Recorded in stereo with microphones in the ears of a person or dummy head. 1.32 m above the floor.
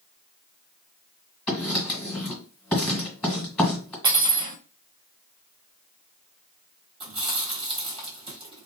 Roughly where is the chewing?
Right.